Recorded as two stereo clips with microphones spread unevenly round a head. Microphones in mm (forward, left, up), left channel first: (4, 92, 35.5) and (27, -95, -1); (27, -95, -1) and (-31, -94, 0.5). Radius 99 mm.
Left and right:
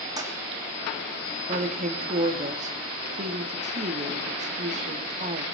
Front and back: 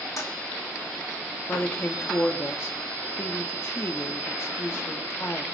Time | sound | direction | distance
0.2 | a toilet flushing | 15° right | 1.9 m
1.5 | a woman speaking | 40° right | 2 m